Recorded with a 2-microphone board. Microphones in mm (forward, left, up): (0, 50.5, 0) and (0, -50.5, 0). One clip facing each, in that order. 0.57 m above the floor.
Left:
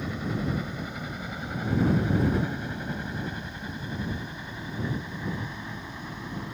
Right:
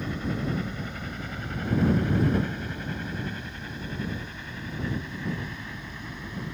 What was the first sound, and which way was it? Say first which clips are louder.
A helicopter: even; 10° left (ahead or behind).